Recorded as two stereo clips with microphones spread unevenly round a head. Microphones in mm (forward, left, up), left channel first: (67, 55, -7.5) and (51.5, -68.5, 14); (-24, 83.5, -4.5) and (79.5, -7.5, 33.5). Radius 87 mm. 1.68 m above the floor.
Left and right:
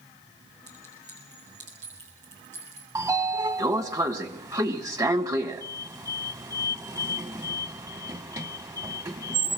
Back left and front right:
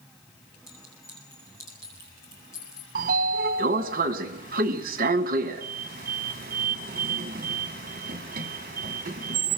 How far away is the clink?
About 7 m.